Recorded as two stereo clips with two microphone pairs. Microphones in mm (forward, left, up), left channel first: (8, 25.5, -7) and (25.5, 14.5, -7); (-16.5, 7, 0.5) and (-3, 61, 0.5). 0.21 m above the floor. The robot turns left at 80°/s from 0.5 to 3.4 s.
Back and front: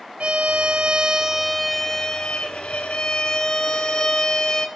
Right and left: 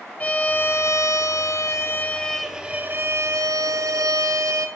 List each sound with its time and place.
0.2 s a violin: 40° right, 1.2 m; by 4.7 s 90° left, 1.2 m